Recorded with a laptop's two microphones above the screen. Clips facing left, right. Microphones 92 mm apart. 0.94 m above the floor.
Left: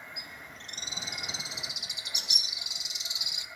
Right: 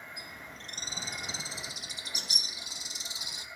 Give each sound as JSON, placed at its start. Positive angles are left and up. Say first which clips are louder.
{"t": 0.2, "sound": "a bird", "louder": "even", "side_deg": -35, "distance_m": 0.9}